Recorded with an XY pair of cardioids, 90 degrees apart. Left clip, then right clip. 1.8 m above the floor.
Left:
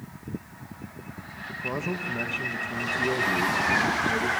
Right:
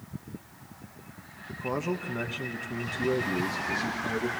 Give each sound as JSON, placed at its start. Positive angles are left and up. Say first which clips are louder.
{"t": 1.5, "sound": "a man speaking", "louder": "left 1 dB", "azimuth_deg": -5, "distance_m": 1.3}